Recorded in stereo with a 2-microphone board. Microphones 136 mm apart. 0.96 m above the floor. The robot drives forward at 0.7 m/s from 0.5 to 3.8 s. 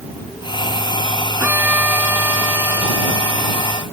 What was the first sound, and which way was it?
A violin, 10° right (ahead or behind).